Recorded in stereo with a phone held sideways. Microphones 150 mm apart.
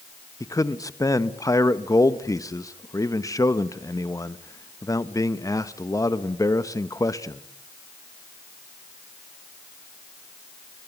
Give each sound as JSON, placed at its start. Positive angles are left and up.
{"t": 0.4, "sound": "a man speaking", "side_deg": 25, "distance_m": 0.9}